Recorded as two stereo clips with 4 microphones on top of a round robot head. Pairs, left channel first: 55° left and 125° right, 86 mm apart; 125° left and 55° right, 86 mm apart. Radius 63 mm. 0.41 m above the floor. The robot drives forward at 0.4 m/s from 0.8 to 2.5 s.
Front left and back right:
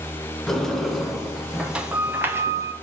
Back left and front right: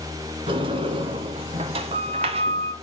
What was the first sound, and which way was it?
A sliding door, 30° right.